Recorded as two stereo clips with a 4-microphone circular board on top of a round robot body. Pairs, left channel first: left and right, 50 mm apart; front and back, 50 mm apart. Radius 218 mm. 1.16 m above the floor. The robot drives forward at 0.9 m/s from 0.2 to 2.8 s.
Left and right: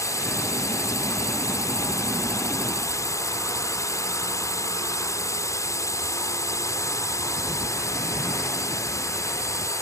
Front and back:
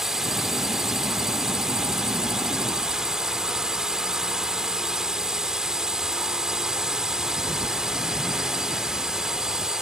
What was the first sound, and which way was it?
A drone, 95° left.